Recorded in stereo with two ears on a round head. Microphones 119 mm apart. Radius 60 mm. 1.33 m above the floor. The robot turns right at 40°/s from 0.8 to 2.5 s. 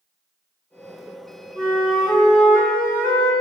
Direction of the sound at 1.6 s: 25° right.